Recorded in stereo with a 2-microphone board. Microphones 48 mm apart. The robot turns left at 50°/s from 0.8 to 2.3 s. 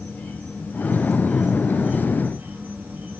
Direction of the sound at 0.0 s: 35° left.